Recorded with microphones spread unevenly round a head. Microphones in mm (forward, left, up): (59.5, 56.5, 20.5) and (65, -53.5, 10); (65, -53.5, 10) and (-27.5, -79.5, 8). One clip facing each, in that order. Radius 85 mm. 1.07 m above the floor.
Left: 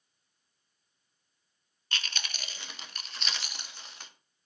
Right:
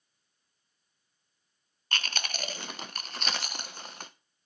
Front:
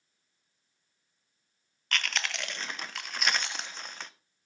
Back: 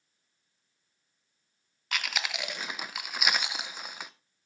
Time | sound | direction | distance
1.9 | chewing | 85° right | 0.6 m